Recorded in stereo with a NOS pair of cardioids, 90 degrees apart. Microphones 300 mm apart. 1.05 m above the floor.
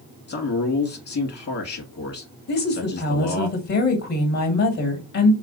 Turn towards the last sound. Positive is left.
turn(degrees=65)